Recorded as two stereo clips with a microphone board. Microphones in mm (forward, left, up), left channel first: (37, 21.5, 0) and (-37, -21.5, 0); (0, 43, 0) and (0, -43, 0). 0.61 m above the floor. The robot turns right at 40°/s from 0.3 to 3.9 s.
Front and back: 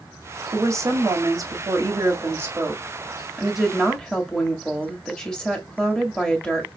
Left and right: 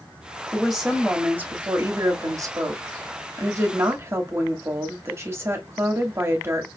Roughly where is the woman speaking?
Behind.